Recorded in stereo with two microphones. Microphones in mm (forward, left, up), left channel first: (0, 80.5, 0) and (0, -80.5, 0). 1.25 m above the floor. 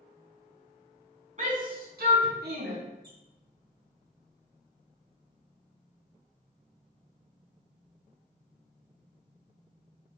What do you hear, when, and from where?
1.4 s a shout: 50° right (ahead or behind), 0.9 m; by 2.8 s 75° right (ahead or behind), 0.9 m
3.0 s a squeak: 80° right, 1.4 m